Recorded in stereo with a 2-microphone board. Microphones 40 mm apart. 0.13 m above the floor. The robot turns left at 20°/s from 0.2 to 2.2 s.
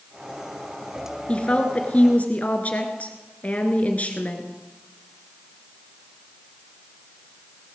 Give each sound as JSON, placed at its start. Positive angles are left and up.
{"t": 1.3, "sound": "a woman speaking", "side_deg": 25, "distance_m": 1.9}